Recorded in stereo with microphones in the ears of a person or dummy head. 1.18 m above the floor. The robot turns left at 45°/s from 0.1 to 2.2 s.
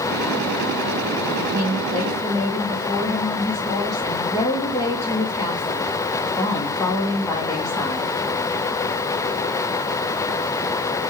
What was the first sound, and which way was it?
A woman speaking, 155° right.